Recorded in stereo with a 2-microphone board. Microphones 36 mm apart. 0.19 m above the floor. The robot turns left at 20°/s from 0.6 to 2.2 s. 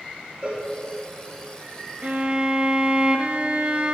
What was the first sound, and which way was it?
A cowbell, 50° right (ahead or behind).